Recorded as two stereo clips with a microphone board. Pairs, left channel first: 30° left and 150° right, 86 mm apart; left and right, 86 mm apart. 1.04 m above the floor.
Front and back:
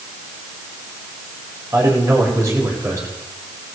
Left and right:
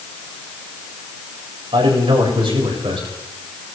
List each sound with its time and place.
1.7 s a man speaking: 95° right, 4.5 m